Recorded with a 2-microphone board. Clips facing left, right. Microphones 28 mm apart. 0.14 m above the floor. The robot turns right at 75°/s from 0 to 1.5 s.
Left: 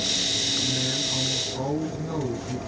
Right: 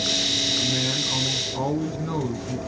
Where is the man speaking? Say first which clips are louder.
Right 2 dB; 95° right, 3.5 m; by 2.6 s 25° right, 3.5 m.